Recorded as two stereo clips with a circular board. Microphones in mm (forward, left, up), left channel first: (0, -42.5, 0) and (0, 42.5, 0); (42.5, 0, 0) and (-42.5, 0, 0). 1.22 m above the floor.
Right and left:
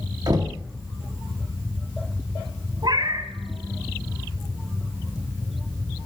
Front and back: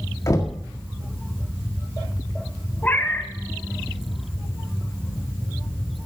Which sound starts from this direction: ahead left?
Knocking, at 0.3 s.